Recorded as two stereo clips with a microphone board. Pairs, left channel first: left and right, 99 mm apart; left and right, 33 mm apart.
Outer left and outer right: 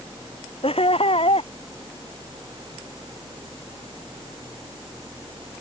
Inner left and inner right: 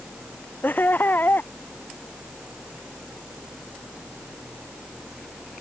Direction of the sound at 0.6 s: 80° left.